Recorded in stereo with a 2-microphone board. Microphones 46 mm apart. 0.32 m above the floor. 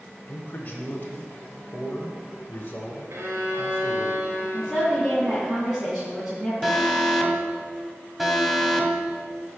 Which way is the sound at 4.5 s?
5° right (ahead or behind).